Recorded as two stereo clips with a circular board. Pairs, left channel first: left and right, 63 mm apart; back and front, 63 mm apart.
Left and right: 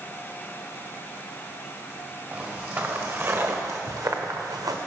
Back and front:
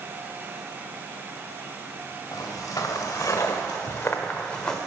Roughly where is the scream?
No scream in this recording.